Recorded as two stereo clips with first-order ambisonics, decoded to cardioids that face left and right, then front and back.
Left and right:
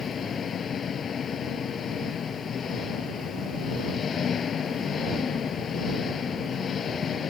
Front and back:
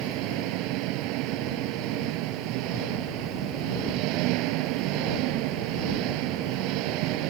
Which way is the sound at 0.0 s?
155° left.